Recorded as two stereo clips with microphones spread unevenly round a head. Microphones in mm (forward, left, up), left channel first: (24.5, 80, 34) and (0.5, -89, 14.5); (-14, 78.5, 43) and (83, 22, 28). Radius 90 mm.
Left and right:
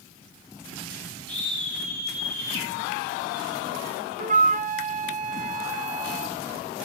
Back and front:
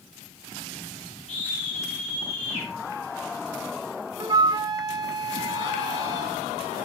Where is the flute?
75° right, 1.4 m.